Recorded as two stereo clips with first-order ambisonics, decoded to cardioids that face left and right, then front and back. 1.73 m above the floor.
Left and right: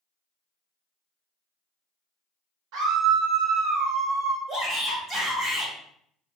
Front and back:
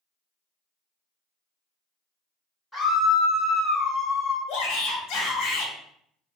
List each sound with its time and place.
2.7 s a scream: 90° right, 1.3 m; by 4.4 s 15° right, 0.7 m
4.5 s a shout: 20° right, 0.9 m